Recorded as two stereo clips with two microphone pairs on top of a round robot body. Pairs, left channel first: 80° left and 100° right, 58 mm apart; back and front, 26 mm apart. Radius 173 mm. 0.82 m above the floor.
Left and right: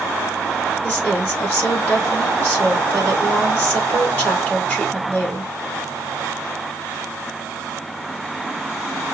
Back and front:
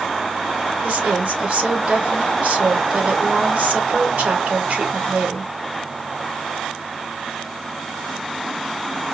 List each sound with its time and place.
0.8 s a woman speaking: 20° left, 2.5 m